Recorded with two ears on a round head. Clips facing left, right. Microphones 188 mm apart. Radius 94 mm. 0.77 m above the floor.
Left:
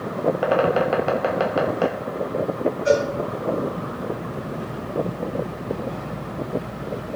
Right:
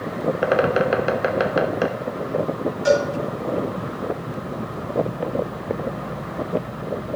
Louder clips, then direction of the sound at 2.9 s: Right 1 dB; 90° right.